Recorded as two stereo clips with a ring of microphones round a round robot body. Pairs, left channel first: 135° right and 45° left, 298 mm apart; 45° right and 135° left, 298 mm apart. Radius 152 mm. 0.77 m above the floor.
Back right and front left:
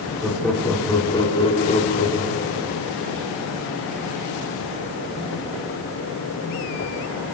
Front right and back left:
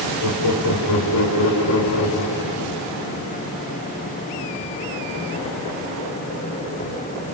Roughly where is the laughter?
Ahead right.